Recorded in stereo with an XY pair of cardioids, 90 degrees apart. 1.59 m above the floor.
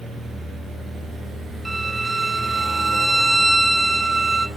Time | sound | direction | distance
1.6 | a violin | 15° right | 0.6 m